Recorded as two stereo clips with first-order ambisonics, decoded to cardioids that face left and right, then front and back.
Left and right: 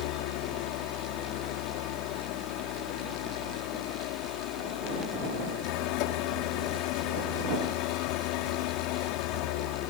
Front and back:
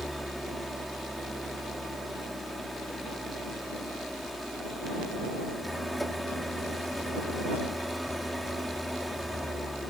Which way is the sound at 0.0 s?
90° left.